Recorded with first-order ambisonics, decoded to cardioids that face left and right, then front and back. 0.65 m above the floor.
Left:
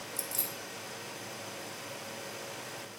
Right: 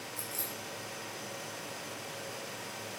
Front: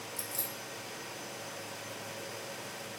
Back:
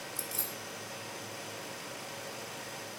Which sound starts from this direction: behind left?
Keys jangling, at 0.2 s.